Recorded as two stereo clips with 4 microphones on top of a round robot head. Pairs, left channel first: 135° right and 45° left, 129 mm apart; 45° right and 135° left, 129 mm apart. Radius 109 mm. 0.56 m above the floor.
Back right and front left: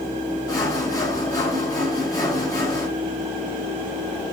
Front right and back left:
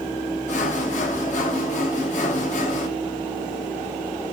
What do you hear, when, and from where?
0.5 s sawing: 70° right, 6 m